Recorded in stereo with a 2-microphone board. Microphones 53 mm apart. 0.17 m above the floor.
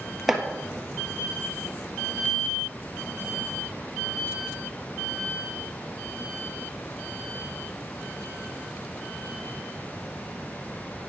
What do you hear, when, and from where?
0.3 s chopping: 5° right (ahead or behind), 1.5 m